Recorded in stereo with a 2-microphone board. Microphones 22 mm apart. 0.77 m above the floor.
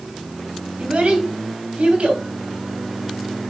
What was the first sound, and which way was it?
A child speaking, 80° right.